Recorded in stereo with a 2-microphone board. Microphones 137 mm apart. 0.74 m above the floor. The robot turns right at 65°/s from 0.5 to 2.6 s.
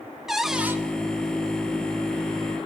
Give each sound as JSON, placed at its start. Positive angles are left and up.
{"t": 0.3, "sound": "a cupboard door", "side_deg": -5, "distance_m": 0.7}